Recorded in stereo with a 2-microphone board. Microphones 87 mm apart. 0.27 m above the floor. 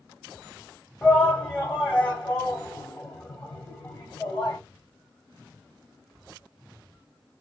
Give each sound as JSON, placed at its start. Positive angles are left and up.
{"t": 1.0, "sound": "a shout", "side_deg": 10, "distance_m": 1.7}